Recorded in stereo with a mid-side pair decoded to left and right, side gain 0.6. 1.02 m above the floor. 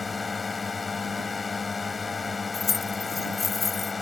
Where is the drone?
25° left.